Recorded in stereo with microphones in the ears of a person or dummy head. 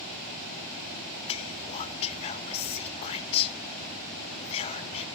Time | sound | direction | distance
1.3 | whispering | 30° left (ahead or behind) | 0.5 m